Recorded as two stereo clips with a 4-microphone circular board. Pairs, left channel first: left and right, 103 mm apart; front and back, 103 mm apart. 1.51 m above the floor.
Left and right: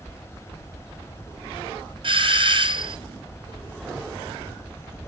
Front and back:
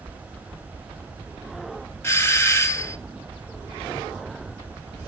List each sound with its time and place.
2.0 s a doorbell: 65° right, 0.6 m